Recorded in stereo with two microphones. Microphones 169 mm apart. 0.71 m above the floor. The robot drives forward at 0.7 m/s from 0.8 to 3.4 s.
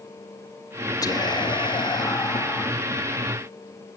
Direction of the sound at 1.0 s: 20° left (ahead or behind).